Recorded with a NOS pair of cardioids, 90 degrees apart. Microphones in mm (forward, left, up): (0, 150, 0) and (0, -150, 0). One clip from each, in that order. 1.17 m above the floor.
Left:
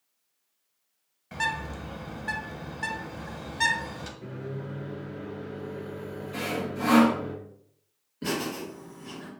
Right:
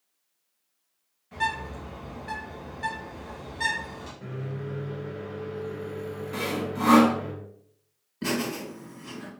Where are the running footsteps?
I don't hear running footsteps.